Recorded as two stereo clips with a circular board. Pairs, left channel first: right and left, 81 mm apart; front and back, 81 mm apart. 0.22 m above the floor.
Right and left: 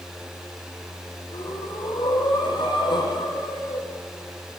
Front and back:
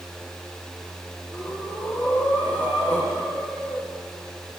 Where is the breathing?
70° right, 10 m.